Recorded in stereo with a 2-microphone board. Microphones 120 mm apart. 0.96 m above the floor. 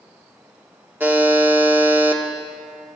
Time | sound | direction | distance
1.0 | a buzzer | 15° right (ahead or behind) | 0.8 m